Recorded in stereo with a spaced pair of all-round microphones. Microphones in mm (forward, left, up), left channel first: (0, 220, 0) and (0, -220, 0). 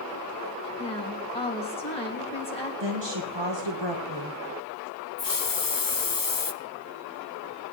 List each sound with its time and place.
0.8 s a woman speaking: 15° left (ahead or behind), 2.5 m
2.8 s a woman speaking: 75° right (ahead or behind), 1.4 m
5.2 s a hiss: 50° left (ahead or behind), 0.6 m